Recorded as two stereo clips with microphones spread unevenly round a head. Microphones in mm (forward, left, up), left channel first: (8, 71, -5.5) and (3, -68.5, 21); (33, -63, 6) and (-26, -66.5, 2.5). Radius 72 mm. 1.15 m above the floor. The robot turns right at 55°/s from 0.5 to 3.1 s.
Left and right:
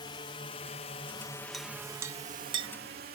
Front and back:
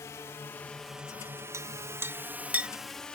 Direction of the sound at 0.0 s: 40° left.